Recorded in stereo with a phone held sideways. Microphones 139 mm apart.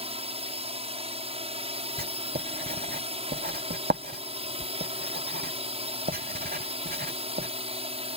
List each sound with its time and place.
0.0 s a drone: 45° right (ahead or behind)
2.0 s writing: 80° right